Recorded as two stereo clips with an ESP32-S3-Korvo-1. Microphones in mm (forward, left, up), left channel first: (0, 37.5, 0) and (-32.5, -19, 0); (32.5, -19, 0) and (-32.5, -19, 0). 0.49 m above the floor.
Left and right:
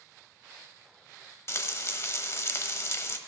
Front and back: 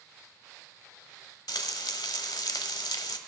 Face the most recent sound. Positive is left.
turn(degrees=15)